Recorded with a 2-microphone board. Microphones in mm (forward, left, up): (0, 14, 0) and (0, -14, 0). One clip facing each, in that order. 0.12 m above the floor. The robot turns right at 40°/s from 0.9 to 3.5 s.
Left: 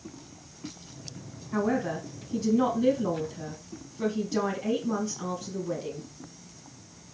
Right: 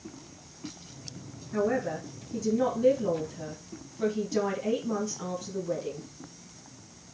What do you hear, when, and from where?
1.5 s a man speaking: 80° left, 3 m; by 6.0 s 160° left, 3 m